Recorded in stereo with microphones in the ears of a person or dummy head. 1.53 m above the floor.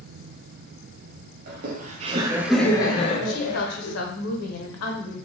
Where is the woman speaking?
80° left, 0.7 m.